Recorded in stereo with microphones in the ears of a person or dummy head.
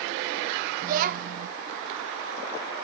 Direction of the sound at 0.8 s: 45° right (ahead or behind).